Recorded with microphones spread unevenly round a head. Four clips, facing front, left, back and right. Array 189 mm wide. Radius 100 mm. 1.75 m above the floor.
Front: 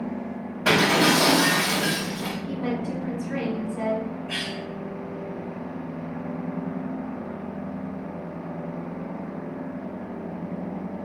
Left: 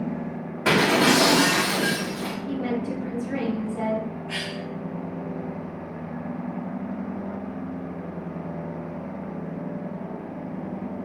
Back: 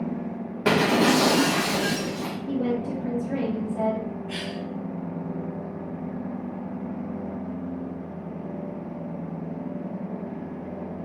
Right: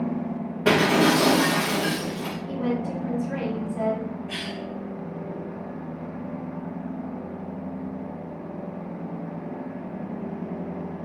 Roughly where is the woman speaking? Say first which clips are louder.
Right 1 dB, back 4 dB; behind.